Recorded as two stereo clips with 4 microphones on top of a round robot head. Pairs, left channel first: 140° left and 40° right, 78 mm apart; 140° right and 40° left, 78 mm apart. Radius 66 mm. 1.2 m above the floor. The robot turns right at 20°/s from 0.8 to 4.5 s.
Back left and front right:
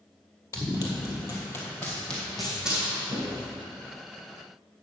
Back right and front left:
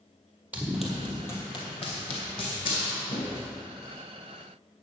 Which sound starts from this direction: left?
Running footsteps, at 0.5 s.